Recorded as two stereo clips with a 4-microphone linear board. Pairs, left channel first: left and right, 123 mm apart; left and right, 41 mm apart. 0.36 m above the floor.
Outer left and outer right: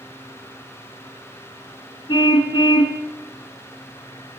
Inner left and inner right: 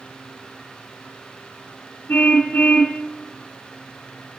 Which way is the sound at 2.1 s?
40° left (ahead or behind).